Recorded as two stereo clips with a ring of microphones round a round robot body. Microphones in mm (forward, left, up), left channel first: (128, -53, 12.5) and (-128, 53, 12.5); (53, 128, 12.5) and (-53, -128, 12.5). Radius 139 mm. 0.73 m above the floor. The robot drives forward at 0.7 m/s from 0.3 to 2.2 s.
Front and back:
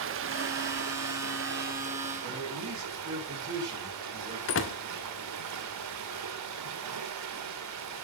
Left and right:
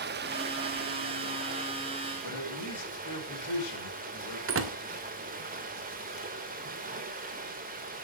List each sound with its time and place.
0.0 s running water: 165° right, 1.1 m; by 8.0 s 175° right, 2.5 m
2.2 s a man speaking: 95° left, 5 m
4.5 s a door slam: 70° right, 1.5 m